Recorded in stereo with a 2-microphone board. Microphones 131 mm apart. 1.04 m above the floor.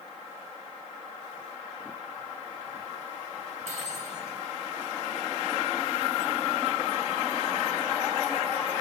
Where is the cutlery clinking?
70° right (ahead or behind), 5 m.